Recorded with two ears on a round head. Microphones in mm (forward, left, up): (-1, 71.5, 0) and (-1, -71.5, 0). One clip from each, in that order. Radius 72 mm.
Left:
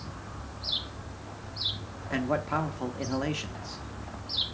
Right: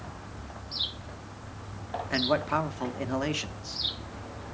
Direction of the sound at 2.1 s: 20° right (ahead or behind).